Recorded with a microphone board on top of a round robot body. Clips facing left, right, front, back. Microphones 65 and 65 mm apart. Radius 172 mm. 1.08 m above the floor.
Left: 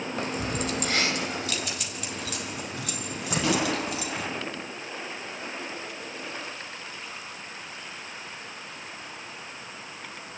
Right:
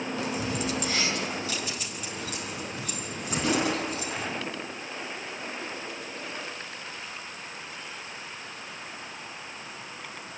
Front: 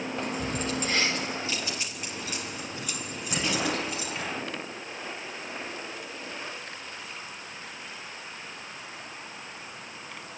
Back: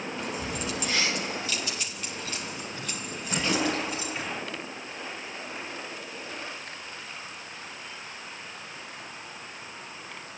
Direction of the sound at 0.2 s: 45° left.